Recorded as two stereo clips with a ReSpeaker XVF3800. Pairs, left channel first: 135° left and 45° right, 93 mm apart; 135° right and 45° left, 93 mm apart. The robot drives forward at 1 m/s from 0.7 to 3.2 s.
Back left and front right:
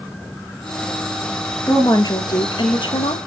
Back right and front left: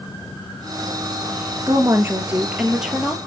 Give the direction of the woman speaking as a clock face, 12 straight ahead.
9 o'clock.